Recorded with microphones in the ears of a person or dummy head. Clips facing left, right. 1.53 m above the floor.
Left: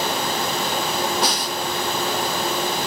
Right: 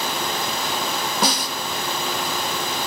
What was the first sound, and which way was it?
A snare drum, 70° right (ahead or behind).